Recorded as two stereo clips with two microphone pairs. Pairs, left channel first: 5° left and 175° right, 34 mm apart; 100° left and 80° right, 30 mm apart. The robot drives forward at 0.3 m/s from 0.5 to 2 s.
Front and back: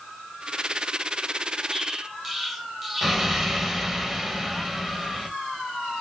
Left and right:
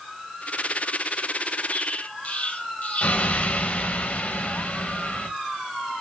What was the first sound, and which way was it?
An explosion, 95° left.